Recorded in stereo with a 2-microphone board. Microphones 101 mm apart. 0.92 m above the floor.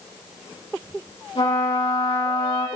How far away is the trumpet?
About 4.5 m.